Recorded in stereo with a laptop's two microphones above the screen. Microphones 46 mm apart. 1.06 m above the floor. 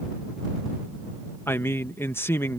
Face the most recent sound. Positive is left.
turn(degrees=60)  # may be behind; listen again after turning